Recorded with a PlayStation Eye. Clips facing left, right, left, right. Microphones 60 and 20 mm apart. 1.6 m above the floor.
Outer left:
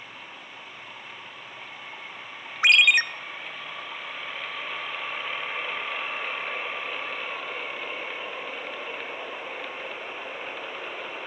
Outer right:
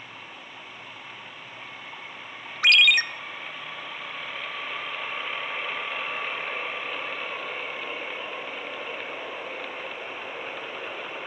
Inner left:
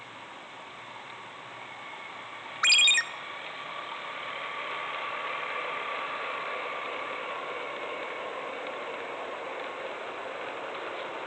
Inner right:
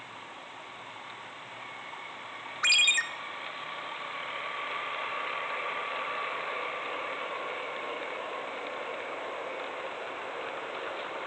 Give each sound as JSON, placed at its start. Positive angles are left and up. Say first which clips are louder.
{"t": 2.6, "sound": "a ringtone", "louder": "outer left 1 dB, inner left 2 dB", "side_deg": 20, "distance_m": 0.6}